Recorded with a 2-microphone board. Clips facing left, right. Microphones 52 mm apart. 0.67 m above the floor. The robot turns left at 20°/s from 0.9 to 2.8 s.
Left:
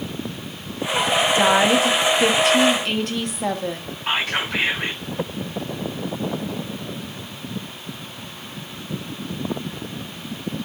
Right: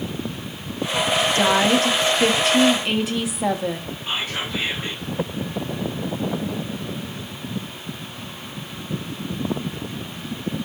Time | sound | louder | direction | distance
1.4 | a woman speaking | left 2 dB | 15° left (ahead or behind) | 1.1 m
4.1 | whispering | left 5 dB | 70° left (ahead or behind) | 6.5 m